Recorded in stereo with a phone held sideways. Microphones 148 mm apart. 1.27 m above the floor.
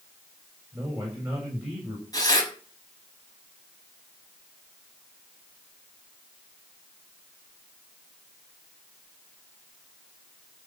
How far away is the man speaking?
About 7 m.